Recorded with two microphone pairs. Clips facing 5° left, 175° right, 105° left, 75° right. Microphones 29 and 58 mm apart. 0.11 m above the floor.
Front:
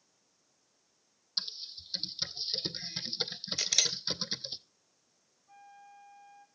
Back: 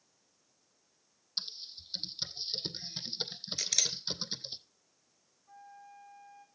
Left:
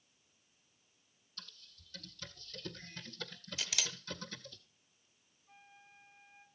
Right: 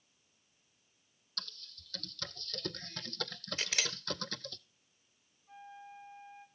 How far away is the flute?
About 3 m.